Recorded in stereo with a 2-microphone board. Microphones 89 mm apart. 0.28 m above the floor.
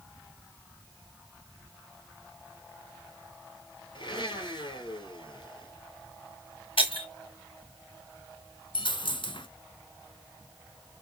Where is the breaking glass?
80° left, 4 m.